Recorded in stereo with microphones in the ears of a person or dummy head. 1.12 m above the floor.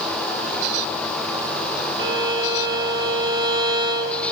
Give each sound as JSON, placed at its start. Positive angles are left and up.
{"t": 2.0, "sound": "a violin", "side_deg": -25, "distance_m": 0.7}